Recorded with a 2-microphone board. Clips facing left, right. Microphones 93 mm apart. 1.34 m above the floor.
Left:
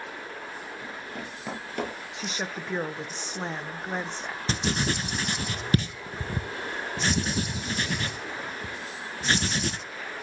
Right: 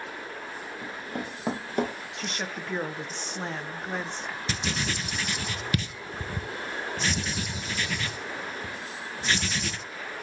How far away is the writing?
About 0.6 m.